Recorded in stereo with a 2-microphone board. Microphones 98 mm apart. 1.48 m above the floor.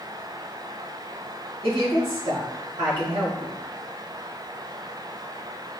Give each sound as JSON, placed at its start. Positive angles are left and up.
{"t": 1.6, "sound": "a woman speaking", "side_deg": -70, "distance_m": 1.8}